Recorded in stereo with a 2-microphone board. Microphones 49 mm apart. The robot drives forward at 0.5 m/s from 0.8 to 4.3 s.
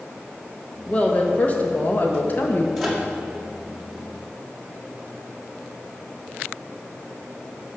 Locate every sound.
0.9 s a woman speaking: 25° left (ahead or behind), 1.3 m; by 2.7 s 35° left (ahead or behind), 1.0 m
2.8 s a microwave: centre (ahead or behind), 1.9 m